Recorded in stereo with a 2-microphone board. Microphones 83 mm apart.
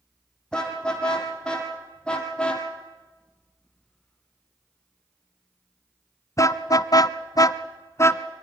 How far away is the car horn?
About 3.5 m.